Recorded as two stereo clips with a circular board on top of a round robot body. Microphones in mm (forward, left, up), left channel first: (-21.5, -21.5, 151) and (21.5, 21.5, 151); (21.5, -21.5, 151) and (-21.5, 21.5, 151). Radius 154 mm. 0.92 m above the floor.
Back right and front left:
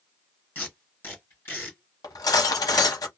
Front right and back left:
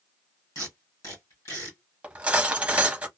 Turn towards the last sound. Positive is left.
turn(degrees=-155)